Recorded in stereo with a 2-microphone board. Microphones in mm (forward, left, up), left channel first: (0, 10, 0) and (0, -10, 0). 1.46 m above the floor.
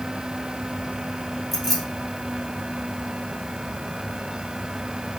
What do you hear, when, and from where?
1.5 s keys jangling: centre (ahead or behind), 2.5 m